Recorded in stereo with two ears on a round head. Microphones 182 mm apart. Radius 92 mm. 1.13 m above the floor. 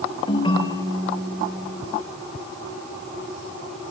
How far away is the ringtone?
About 2 m.